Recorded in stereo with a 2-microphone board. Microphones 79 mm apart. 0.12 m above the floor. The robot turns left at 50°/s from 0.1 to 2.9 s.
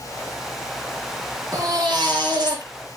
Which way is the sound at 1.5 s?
60° right.